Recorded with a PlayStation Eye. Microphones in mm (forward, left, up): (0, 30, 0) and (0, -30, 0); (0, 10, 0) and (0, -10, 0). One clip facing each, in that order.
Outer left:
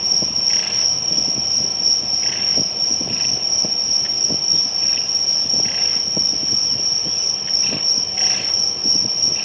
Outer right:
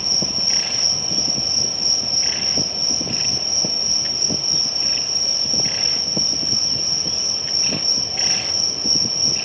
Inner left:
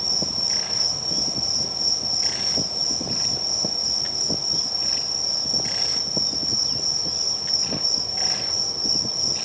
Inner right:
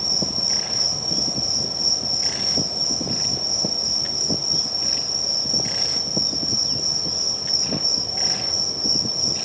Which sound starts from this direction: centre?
An insect, at 0.0 s.